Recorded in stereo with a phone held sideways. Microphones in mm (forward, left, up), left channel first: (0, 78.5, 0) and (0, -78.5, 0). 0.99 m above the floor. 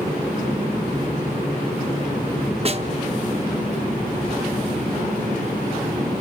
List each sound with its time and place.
2.6 s a snare drum: 40° right (ahead or behind), 0.7 m